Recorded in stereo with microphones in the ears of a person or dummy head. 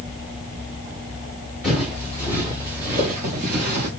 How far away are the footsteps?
About 1.4 m.